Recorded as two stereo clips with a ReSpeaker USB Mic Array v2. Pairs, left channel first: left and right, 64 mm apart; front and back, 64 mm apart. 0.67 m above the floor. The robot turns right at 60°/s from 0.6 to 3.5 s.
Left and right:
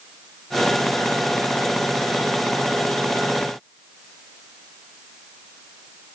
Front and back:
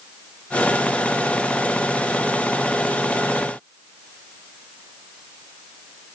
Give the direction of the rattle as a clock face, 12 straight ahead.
I don't hear a rattle.